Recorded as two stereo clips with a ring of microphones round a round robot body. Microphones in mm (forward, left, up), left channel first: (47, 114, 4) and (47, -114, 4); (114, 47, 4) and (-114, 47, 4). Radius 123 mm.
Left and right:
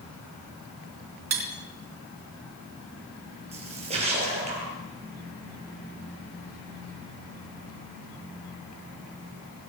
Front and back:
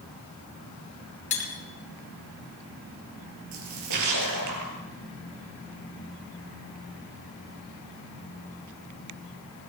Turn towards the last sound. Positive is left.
turn(degrees=-160)